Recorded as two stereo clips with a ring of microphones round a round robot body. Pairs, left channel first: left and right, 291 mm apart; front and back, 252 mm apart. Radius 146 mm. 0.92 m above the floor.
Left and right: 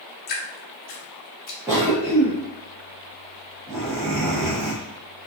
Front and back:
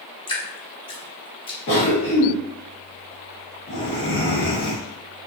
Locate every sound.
0.3 s dripping: 55° left, 0.6 m
1.7 s a cough: 15° right, 0.8 m